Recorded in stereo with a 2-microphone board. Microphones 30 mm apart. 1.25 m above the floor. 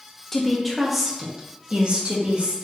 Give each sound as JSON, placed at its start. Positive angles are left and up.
{"t": 0.3, "sound": "a woman speaking", "side_deg": 15, "distance_m": 1.1}